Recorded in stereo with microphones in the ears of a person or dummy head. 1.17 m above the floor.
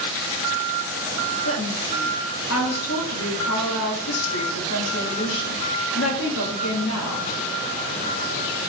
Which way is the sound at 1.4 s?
80° left.